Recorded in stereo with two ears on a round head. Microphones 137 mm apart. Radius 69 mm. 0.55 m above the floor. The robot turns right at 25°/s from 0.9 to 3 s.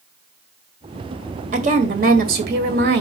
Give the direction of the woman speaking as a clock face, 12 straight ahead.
4 o'clock.